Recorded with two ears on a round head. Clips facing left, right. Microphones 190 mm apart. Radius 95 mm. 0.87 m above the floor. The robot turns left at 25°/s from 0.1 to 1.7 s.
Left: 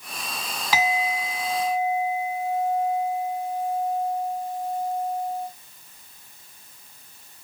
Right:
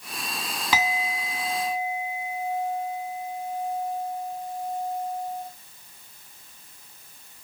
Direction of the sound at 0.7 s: 75° right (ahead or behind).